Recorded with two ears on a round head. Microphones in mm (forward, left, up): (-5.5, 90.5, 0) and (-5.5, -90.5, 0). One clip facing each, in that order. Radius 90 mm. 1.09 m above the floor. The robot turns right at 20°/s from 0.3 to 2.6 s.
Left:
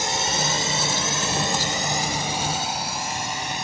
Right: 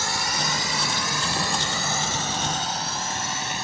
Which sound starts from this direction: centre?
A drone, at 0.0 s.